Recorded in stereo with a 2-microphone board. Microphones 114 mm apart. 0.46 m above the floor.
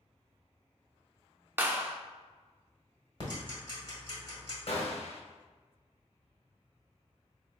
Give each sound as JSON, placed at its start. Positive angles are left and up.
{"t": 1.6, "sound": "a clap", "side_deg": -15, "distance_m": 0.5}
{"t": 3.2, "sound": "ticking", "side_deg": 40, "distance_m": 1.5}
{"t": 4.7, "sound": "a gunshot", "side_deg": 55, "distance_m": 0.7}